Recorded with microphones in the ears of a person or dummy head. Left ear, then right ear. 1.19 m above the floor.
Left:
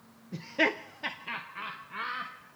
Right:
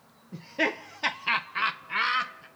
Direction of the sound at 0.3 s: 20° left (ahead or behind).